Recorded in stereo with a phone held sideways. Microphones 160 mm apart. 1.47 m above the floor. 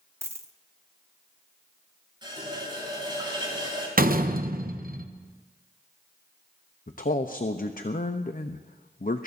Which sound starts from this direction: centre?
A dropped coin, at 0.2 s.